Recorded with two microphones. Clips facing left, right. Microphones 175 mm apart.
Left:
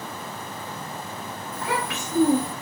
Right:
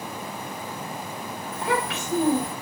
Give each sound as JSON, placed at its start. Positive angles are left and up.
{"t": 1.5, "sound": "a child speaking", "side_deg": -25, "distance_m": 1.4}